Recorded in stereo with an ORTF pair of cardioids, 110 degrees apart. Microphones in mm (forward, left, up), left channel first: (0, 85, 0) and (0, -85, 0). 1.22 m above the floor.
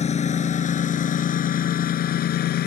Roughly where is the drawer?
I don't hear a drawer.